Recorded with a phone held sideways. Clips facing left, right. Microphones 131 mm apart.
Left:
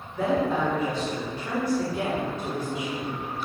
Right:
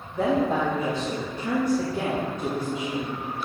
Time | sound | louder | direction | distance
0.1 | a woman speaking | right 2 dB | 45° right (ahead or behind) | 2 m